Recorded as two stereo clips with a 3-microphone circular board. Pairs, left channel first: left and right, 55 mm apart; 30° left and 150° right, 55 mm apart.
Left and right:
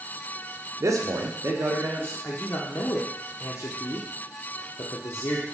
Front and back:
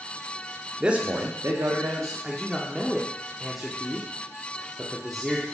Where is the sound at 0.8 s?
70° right, 0.6 m; by 2.1 s 140° right, 1.2 m.